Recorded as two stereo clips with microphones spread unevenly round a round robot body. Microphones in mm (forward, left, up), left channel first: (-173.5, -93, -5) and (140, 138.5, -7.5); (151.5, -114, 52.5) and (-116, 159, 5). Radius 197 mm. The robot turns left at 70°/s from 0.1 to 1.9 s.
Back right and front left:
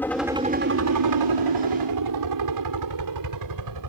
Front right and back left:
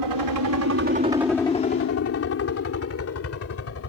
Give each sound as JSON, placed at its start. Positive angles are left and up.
{"t": 0.0, "sound": "a helicopter", "azimuth_deg": 130}